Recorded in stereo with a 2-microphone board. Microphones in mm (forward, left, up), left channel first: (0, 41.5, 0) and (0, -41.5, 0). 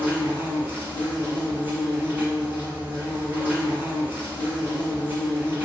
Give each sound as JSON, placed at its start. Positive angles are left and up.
{"t": 0.0, "sound": "an insect", "side_deg": -25, "distance_m": 1.1}